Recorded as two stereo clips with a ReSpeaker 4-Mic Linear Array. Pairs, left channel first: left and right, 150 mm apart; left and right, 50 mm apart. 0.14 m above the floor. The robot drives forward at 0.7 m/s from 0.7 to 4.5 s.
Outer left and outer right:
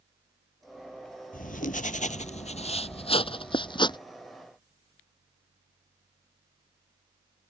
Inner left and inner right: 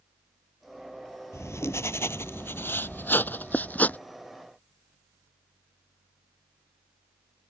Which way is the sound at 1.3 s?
65° left (ahead or behind).